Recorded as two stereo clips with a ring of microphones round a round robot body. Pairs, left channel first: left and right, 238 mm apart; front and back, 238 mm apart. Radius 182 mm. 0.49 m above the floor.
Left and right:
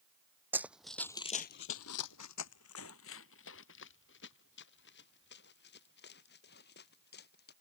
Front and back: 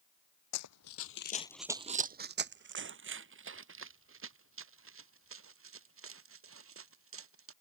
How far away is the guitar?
No guitar in this recording.